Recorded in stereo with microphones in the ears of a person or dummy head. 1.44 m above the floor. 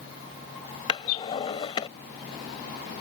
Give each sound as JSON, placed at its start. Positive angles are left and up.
{"t": 0.9, "sound": "a drawer", "side_deg": 25}